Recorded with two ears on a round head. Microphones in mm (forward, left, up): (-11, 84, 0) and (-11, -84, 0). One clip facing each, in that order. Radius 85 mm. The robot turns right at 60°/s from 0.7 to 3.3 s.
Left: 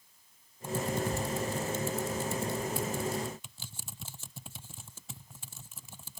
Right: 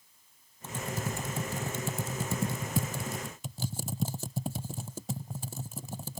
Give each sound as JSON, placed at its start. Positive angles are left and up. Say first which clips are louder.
{"t": 0.6, "sound": "typing on a keyboard", "louder": "left 4 dB", "side_deg": 10}